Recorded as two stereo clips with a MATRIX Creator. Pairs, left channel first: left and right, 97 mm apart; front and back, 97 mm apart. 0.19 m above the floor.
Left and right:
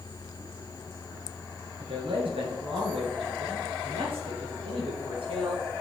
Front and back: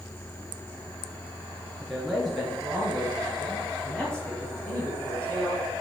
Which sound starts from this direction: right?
A man speaking, at 1.8 s.